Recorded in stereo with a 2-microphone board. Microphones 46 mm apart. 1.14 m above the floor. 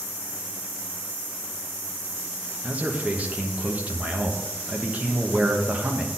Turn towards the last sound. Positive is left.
turn(degrees=-35)  # may be behind; listen again after turning